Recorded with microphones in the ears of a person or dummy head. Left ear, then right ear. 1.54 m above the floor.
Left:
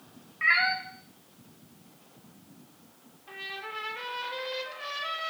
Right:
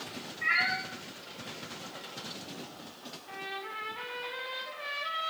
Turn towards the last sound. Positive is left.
turn(degrees=45)  # may be behind; listen again after turning